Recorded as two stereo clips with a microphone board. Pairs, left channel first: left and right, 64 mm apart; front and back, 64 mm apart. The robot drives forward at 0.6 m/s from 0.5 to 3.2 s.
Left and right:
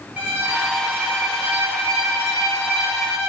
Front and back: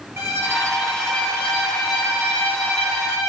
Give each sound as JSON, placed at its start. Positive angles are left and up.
{"t": 0.2, "sound": "a violin", "azimuth_deg": -145, "distance_m": 1.3}